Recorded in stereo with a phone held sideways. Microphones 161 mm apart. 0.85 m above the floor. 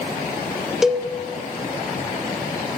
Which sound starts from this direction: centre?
A cowbell, at 0.8 s.